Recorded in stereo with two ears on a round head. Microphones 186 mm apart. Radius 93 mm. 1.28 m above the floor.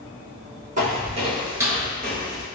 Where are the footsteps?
40° right (ahead or behind), 1.6 m; by 2.5 s 20° left (ahead or behind), 1.3 m.